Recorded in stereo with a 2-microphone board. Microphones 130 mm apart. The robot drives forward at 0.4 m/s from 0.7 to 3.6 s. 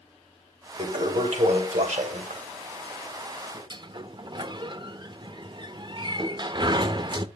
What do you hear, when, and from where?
0.8 s a toilet flushing: 65° right (ahead or behind), 2 m
3.7 s a sliding door: 35° right (ahead or behind), 0.5 m